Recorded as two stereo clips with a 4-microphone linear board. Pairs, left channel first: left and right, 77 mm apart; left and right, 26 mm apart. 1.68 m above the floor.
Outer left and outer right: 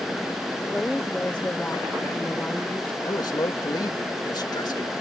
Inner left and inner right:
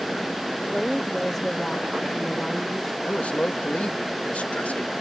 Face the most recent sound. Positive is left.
turn(degrees=65)  # may be behind; listen again after turning